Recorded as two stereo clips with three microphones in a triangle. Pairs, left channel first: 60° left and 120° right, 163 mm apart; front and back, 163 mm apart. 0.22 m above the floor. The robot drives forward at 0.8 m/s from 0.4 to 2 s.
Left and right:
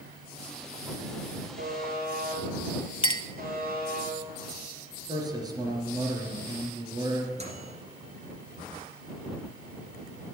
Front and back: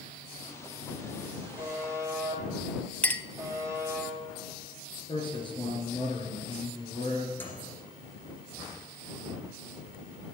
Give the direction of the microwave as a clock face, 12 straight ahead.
3 o'clock.